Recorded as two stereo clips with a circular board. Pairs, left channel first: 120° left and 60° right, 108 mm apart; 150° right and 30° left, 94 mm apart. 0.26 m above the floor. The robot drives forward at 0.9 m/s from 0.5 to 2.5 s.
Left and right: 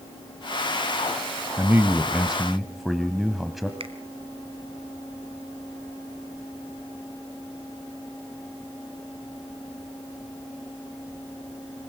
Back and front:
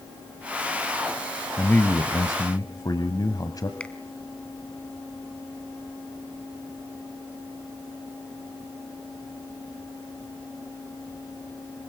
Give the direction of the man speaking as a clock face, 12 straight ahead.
3 o'clock.